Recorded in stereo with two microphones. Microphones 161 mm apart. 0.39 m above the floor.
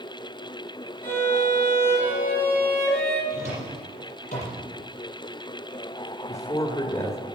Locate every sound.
1.0 s a violin: 80° right, 5.5 m
3.3 s a drawer: 45° left (ahead or behind), 6 m
6.3 s a man speaking: 20° left (ahead or behind), 1.7 m